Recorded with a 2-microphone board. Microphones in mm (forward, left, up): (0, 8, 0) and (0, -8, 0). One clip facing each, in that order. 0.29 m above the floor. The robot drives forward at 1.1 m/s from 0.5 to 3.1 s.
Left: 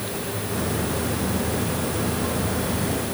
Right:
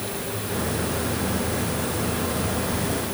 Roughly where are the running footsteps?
I don't hear running footsteps.